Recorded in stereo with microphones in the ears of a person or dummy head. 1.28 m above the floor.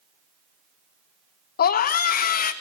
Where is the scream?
50° left (ahead or behind), 0.8 m.